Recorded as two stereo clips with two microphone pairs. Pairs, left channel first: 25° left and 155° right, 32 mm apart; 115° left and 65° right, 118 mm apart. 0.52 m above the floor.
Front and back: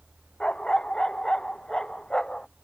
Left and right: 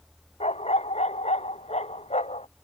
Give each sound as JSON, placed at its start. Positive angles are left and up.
{"t": 0.4, "sound": "a dog barking", "azimuth_deg": 90}